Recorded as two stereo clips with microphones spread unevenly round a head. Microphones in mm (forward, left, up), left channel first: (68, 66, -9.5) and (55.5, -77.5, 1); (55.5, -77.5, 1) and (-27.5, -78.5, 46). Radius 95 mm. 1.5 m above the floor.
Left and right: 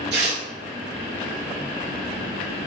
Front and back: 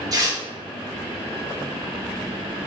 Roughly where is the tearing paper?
Behind right.